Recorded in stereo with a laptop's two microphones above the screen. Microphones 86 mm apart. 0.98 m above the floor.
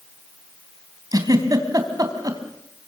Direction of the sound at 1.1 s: 45° right (ahead or behind).